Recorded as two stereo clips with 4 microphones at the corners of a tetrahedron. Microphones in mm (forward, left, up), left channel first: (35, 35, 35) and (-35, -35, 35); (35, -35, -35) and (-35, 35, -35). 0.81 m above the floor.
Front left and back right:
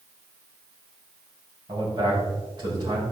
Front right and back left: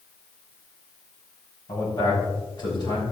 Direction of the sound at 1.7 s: 90° right.